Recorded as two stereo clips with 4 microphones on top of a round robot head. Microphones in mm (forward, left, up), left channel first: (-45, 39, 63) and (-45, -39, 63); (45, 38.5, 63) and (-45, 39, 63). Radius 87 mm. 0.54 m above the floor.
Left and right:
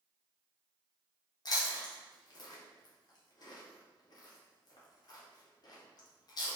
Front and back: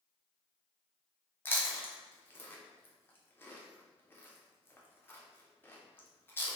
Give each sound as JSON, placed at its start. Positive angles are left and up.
{"t": 1.4, "sound": "chewing", "azimuth_deg": 65, "distance_m": 0.9}